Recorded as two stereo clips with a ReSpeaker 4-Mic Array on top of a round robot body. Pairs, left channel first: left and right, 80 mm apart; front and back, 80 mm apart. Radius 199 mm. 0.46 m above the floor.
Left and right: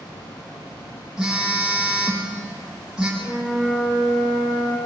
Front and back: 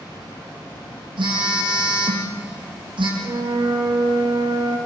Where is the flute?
175° left, 9.5 m.